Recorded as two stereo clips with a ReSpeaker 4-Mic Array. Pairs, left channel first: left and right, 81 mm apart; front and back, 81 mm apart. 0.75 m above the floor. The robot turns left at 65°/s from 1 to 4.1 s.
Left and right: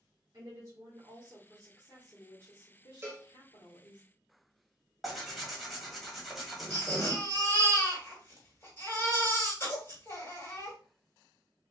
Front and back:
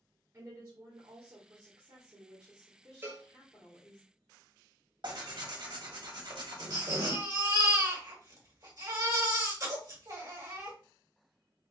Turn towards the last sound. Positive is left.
turn(degrees=145)